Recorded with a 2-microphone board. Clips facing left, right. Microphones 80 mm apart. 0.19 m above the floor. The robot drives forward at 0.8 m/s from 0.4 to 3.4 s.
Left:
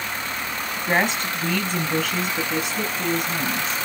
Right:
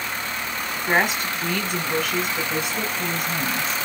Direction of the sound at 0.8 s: 5° right (ahead or behind).